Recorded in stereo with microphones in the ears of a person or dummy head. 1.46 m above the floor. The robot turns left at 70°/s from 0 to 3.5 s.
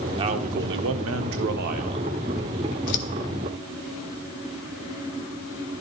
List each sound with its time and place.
0.2 s a man speaking: 25° right, 0.7 m; by 2.2 s 165° right, 0.7 m
2.9 s scissors: 80° left, 0.6 m